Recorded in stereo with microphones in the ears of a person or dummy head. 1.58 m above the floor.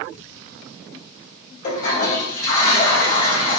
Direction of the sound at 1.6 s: 40° left (ahead or behind).